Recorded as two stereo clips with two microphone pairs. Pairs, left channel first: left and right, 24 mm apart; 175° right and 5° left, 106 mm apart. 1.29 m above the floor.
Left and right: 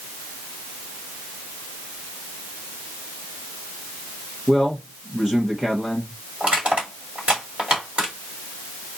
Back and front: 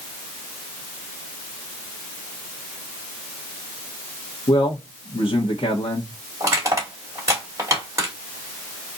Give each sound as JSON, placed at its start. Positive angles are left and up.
{"t": 4.5, "sound": "a man speaking", "azimuth_deg": -160, "distance_m": 1.3}
{"t": 6.4, "sound": "crushing", "azimuth_deg": -60, "distance_m": 2.5}